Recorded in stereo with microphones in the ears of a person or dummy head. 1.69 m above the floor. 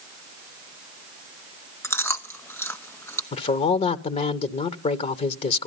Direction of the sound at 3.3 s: 35° left (ahead or behind).